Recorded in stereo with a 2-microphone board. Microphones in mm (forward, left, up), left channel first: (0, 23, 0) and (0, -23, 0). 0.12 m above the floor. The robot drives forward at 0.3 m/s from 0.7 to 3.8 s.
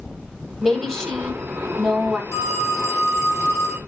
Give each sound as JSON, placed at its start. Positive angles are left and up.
{"t": 0.6, "sound": "a woman speaking", "side_deg": 5, "distance_m": 3.0}
{"t": 2.3, "sound": "a phone ringing", "side_deg": 60, "distance_m": 3.0}